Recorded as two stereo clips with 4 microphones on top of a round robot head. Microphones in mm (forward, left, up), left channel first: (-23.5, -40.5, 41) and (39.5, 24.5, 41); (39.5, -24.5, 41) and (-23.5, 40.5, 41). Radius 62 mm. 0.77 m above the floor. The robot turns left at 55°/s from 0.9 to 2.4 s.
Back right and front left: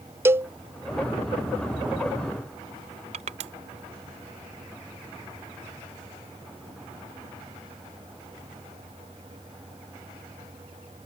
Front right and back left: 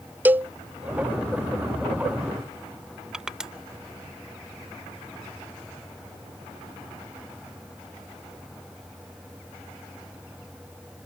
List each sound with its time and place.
0.2 s a cowbell: 85° left
3.1 s crushing: 50° left